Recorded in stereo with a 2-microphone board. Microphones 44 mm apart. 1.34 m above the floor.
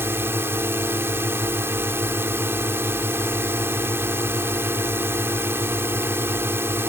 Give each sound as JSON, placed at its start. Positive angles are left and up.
{"t": 0.0, "sound": "a drone", "side_deg": -70}